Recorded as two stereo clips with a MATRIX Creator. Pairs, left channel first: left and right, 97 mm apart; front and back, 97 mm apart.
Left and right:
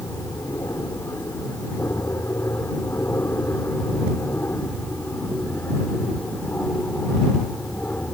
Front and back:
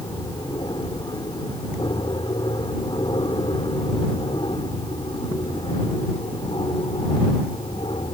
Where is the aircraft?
35° left; by 8.2 s 15° left.